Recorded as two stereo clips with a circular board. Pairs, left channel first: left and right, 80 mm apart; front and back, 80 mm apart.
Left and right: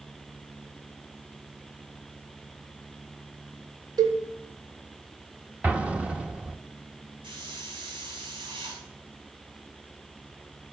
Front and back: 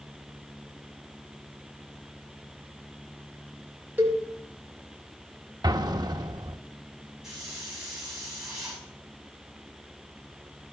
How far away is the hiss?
About 6.5 m.